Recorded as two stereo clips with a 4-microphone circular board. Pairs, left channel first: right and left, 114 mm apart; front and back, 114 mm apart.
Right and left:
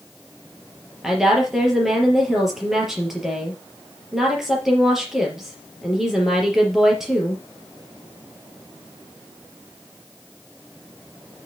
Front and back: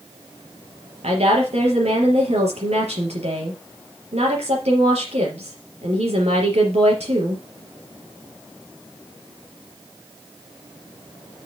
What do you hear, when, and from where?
1.0 s a woman speaking: 175° left, 4.5 m